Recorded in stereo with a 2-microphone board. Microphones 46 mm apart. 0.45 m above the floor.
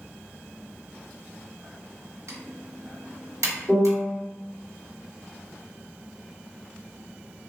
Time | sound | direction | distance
2.3 | typing on a keyboard | 85° right | 0.7 m
3.7 | a piano | 15° right (ahead or behind) | 1.6 m